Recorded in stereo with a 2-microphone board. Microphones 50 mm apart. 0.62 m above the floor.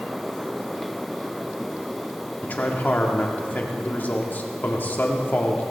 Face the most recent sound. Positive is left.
turn(degrees=35)  # may be behind; listen again after turning